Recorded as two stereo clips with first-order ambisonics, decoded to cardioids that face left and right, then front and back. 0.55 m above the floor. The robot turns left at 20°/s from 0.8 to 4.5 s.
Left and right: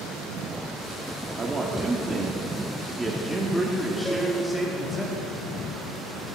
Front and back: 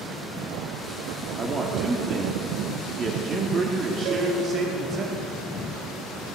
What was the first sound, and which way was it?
A man speaking, 140° right.